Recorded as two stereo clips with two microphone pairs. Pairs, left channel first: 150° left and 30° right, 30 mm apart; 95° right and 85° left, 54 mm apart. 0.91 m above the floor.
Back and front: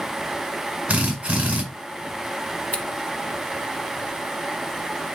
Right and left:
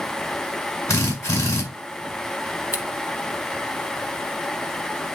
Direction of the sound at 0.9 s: 85° right.